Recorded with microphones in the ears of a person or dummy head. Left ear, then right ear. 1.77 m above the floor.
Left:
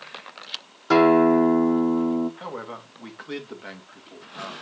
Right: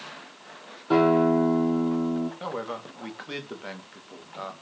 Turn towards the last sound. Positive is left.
turn(degrees=5)  # may be behind; listen again after turning